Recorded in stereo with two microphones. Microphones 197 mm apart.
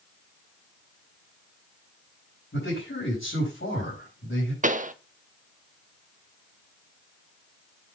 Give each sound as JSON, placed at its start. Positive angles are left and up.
{"t": 2.5, "sound": "a man speaking", "side_deg": 80, "distance_m": 5.5}
{"t": 4.6, "sound": "a pop", "side_deg": -40, "distance_m": 0.6}